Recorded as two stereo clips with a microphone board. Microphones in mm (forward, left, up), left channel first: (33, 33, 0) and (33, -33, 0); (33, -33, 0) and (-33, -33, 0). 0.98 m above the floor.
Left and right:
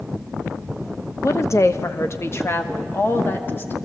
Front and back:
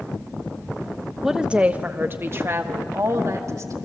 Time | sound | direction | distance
1.2 | a woman speaking | 95° left | 0.9 m